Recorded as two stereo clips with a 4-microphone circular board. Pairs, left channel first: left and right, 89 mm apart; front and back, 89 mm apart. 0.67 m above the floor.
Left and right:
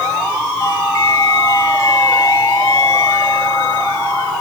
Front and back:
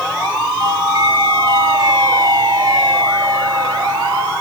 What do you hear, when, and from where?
0.6 s a doorbell: 140° left, 6.5 m